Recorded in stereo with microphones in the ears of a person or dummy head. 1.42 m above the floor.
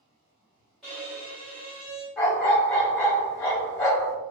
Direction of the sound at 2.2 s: 15° left (ahead or behind).